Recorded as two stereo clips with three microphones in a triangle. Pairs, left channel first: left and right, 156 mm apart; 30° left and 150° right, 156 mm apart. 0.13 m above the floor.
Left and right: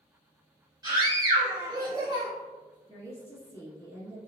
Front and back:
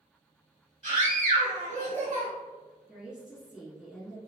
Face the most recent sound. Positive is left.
turn(degrees=135)